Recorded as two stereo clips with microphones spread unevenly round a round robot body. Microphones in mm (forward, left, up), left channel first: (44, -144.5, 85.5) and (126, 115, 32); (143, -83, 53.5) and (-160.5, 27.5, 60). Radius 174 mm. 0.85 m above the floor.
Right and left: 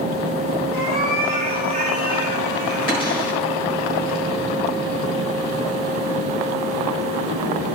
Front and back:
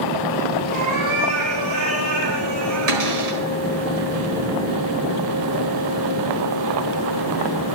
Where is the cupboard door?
175° left, 4.5 m.